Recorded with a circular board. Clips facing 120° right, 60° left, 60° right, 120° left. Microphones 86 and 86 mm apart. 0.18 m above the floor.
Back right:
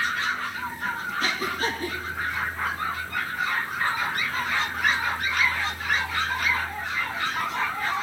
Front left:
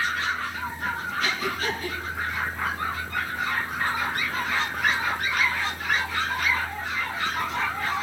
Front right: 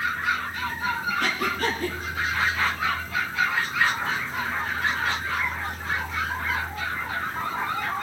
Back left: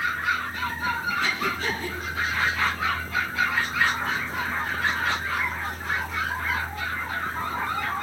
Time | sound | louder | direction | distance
1.2 | breathing | back right 1 dB, front right 1 dB | 75° right | 5.5 m